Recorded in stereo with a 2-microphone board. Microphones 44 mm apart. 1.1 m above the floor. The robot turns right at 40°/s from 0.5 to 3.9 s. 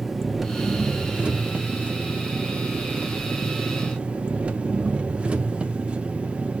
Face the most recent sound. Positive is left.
turn(degrees=-35)